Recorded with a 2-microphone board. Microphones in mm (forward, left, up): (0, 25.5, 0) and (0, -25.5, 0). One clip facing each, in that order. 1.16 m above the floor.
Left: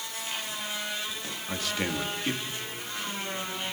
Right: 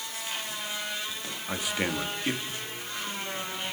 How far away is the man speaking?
About 2.5 m.